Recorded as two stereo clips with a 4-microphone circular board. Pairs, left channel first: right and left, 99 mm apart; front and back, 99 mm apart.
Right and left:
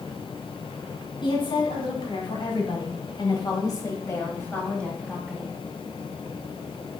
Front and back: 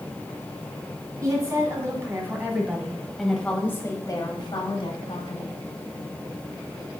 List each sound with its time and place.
1.2 s a woman speaking: 125° right, 2.5 m; by 5.5 s straight ahead, 2 m